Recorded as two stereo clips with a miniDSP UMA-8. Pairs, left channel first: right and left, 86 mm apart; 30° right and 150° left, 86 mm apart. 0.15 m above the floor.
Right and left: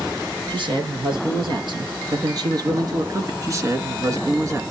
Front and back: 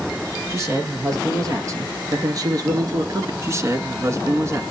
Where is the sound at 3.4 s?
115° left, 1.7 m.